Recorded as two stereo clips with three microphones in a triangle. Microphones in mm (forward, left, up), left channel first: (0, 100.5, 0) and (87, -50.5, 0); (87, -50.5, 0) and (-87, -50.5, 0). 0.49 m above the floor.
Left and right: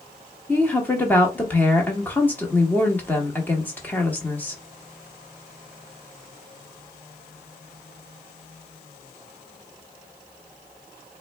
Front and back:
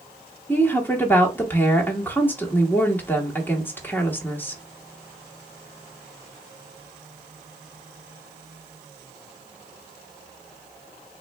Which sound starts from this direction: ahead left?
A woman speaking, at 0.5 s.